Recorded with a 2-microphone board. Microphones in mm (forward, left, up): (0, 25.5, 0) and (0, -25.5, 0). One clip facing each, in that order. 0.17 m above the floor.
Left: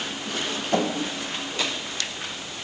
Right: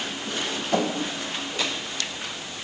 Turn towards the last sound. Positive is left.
No sound to turn to.